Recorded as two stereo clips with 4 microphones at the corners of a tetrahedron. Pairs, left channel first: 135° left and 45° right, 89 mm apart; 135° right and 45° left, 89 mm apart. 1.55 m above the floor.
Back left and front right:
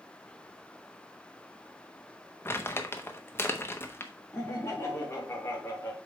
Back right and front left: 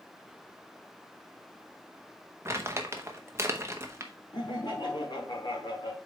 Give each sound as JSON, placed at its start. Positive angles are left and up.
{"t": 2.5, "sound": "crumpling", "azimuth_deg": 85, "distance_m": 1.0}
{"t": 4.3, "sound": "laughter", "azimuth_deg": -165, "distance_m": 3.5}